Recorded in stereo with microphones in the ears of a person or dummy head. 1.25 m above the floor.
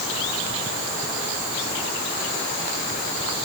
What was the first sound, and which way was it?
Only background noise.